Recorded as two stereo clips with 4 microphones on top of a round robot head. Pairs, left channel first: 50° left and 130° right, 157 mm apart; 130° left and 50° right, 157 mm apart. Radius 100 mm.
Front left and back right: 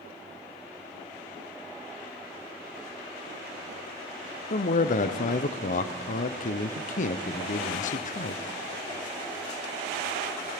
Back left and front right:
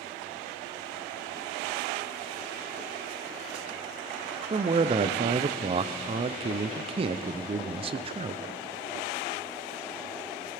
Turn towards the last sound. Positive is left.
turn(degrees=5)